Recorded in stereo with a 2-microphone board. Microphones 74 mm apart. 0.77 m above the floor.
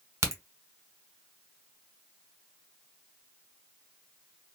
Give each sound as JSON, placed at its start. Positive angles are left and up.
{"t": 0.2, "sound": "a crack", "side_deg": -45, "distance_m": 1.0}